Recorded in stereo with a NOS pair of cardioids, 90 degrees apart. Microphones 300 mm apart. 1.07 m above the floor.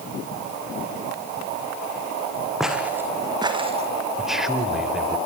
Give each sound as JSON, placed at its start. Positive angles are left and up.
{"t": 2.6, "sound": "footsteps", "azimuth_deg": 0, "distance_m": 4.0}
{"t": 4.2, "sound": "a man speaking", "azimuth_deg": 0, "distance_m": 3.5}